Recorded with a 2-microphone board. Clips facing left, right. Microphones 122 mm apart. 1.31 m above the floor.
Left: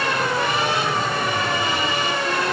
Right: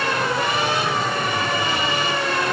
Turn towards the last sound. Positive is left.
No sound to turn to.